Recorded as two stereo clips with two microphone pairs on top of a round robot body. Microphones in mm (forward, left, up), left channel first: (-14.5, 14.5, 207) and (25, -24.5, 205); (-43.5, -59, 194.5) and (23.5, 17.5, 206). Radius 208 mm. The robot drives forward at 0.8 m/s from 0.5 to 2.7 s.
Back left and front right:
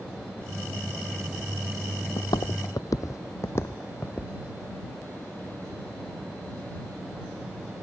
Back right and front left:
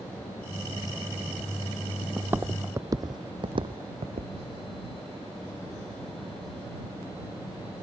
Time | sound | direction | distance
2.2 | footsteps | 120° left | ?